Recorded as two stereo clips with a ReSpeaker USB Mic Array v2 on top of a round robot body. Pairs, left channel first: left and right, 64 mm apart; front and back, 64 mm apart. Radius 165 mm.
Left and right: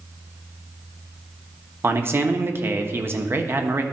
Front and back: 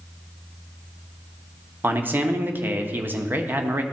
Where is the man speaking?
130° right, 1.1 m.